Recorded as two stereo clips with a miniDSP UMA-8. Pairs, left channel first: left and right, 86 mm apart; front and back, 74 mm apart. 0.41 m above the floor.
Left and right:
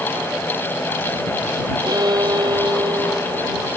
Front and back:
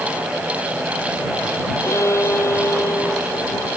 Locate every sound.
1.8 s a violin: 50° right